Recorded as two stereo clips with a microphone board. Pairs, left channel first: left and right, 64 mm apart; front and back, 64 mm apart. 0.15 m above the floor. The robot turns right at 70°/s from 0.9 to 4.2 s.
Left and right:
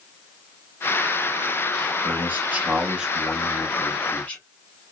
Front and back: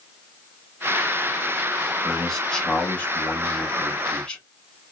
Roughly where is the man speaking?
Right.